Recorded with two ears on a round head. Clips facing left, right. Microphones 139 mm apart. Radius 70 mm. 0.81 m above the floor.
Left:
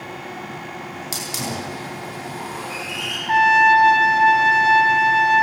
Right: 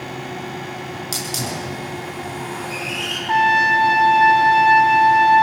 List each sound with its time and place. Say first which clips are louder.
1.1 s a hiss: even; 5° left (ahead or behind), 8 m
3.3 s a trumpet: left 2 dB; 30° left (ahead or behind), 3.5 m